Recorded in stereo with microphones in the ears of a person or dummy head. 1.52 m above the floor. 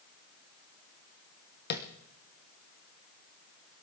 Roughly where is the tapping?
Left.